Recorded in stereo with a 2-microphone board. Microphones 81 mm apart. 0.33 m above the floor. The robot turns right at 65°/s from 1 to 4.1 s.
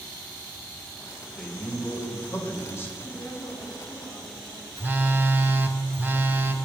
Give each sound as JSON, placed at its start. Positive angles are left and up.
{"t": 1.4, "sound": "a man speaking", "side_deg": 5, "distance_m": 1.1}
{"t": 3.0, "sound": "a woman speaking", "azimuth_deg": 80, "distance_m": 3.0}
{"t": 4.8, "sound": "a phone buzzing", "side_deg": -25, "distance_m": 0.5}